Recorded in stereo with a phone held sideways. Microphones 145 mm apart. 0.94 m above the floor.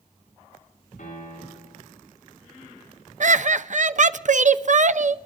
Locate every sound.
1.0 s a piano: 85° left, 8.5 m
3.2 s laughter: 55° right (ahead or behind), 0.5 m